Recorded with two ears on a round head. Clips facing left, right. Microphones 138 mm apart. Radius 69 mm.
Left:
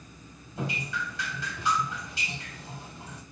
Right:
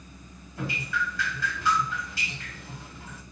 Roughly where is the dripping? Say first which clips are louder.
Right 2 dB; centre.